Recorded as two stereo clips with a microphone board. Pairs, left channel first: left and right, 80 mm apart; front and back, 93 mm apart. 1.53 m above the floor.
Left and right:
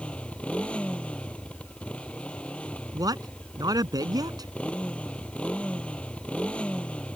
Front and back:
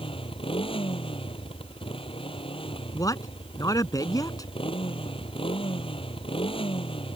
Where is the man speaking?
50° right.